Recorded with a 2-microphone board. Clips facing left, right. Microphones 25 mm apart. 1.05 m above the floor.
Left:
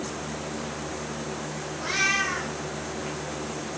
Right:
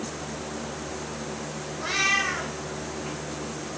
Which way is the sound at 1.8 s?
40° right (ahead or behind).